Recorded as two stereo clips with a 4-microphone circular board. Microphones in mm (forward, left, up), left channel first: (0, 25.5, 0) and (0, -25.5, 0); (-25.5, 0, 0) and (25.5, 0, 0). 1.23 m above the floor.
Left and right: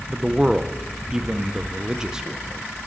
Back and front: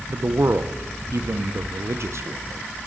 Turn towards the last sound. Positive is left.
turn(degrees=-15)